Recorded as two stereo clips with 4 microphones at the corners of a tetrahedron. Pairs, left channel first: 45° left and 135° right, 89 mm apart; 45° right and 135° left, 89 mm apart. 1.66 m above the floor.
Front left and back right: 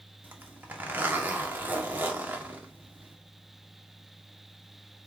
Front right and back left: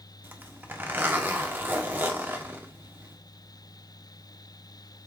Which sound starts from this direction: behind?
A zipper, at 0.2 s.